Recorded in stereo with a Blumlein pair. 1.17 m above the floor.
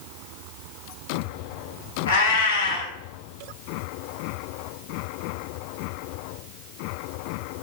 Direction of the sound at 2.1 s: 65° left.